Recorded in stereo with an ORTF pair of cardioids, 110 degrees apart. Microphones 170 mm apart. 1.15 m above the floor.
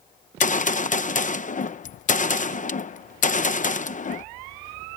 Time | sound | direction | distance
0.4 | a gunshot | 50° left | ?